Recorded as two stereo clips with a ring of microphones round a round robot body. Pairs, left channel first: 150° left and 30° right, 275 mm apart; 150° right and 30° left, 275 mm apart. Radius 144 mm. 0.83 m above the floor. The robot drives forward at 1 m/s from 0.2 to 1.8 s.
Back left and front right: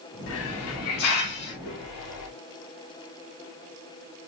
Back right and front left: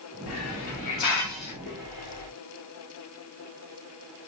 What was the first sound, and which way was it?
A hiss, 175° right.